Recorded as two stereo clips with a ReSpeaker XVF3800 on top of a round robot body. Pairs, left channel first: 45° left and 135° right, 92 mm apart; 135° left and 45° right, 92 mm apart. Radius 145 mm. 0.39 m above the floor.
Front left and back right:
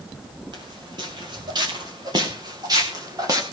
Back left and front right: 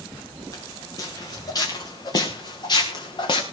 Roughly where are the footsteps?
Behind.